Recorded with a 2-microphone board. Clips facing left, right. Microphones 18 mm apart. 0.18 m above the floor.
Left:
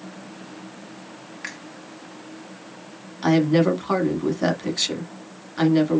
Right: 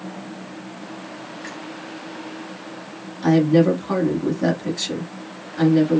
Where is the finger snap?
40° left (ahead or behind), 1.8 m.